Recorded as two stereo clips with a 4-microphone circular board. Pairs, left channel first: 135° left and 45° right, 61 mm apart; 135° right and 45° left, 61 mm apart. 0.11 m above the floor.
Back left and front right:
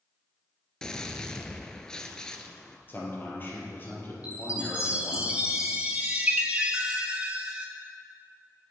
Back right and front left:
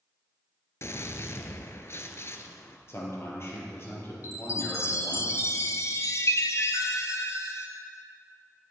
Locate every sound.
0.8 s a gunshot: 150° right, 0.7 m
2.9 s a man speaking: 175° right, 3 m
4.2 s a chime: 110° right, 1.1 m